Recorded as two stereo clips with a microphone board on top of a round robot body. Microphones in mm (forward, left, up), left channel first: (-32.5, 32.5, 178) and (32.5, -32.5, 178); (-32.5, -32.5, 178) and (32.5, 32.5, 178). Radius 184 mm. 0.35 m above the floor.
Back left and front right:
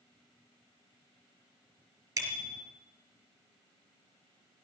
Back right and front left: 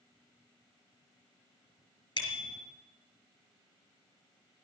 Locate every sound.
2.2 s a bicycle bell: 105° right, 3.5 m